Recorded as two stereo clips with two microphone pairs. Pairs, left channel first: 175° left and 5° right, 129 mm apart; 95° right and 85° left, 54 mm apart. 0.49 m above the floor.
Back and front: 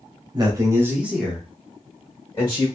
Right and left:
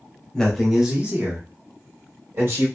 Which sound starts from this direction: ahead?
A man speaking, at 0.3 s.